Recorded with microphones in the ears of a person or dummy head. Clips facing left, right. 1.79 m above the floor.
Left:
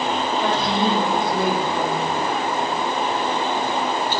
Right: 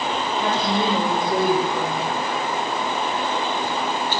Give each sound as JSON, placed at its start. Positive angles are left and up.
{"t": 0.4, "sound": "a woman speaking", "side_deg": -70, "distance_m": 8.5}